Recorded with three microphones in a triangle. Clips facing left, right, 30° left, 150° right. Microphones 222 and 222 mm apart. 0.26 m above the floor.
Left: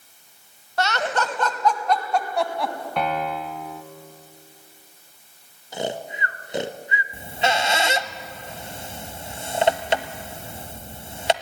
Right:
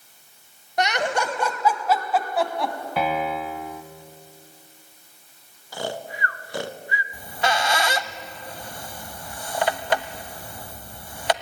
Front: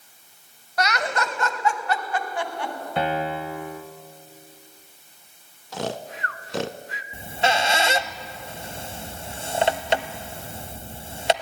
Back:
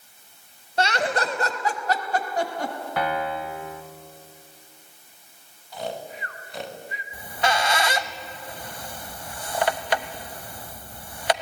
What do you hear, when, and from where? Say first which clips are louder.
0.8 s laughter: right 1 dB, back 2 dB; 145° right, 1.4 m; by 2.7 s straight behind, 2 m
3.0 s a piano: right 1 dB, front 2 dB; 10° right, 1.1 m
5.7 s snoring: left 2 dB, front 3 dB; 25° left, 0.7 m
7.1 s a squeak: left 1 dB, front 2 dB; 60° left, 0.7 m